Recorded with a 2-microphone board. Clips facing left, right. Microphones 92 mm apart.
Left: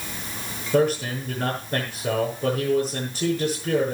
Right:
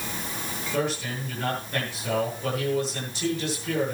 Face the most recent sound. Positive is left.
turn(degrees=35)  # may be behind; listen again after turning